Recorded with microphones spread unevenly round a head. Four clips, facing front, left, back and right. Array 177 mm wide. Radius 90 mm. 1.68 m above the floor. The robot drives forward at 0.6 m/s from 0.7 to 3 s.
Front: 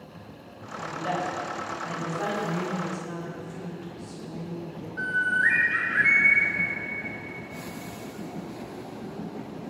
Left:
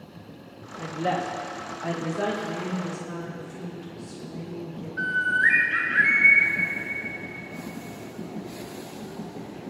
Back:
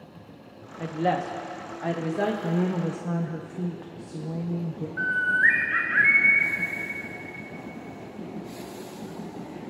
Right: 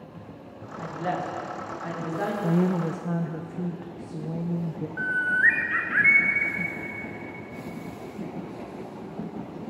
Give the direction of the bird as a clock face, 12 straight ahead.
3 o'clock.